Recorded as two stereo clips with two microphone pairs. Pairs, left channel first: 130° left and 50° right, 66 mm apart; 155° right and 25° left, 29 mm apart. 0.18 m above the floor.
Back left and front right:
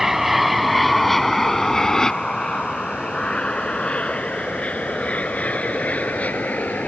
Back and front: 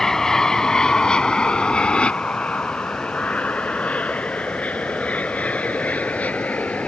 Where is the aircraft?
125° right; by 6.9 s 170° right.